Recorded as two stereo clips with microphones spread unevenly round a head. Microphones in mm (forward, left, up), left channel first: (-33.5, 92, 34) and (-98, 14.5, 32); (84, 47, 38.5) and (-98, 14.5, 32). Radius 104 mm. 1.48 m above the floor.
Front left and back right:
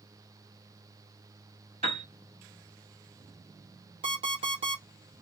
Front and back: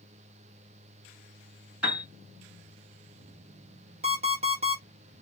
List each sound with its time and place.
1.8 s a piano: 85° right, 1.9 m
4.0 s an alarm clock: 115° right, 1.2 m